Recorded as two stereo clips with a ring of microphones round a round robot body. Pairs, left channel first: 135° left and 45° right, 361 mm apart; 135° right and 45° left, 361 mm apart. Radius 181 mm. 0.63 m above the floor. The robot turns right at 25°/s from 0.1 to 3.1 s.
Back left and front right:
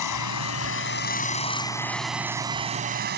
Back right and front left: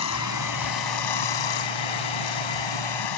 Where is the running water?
175° left; by 3.2 s 110° right.